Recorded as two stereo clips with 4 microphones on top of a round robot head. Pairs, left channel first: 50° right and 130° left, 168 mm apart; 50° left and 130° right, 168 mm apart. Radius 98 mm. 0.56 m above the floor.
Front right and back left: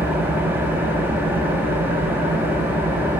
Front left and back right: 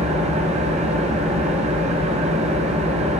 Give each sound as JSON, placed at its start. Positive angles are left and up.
{"t": 0.0, "sound": "an engine running", "azimuth_deg": -155, "distance_m": 1.2}